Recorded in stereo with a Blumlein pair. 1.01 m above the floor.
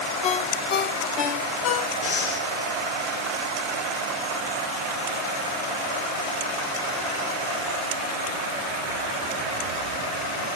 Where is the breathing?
60° left, 2.5 m.